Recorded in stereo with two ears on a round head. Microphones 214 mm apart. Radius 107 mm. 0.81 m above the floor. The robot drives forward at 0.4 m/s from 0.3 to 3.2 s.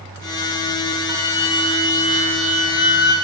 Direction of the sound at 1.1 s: 15° right (ahead or behind).